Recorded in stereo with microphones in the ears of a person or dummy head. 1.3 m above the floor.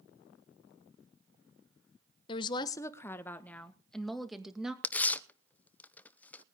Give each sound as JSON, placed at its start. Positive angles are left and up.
{"t": 2.3, "sound": "a woman speaking", "side_deg": 30, "distance_m": 1.0}
{"t": 4.8, "sound": "tearing paper", "side_deg": 10, "distance_m": 0.6}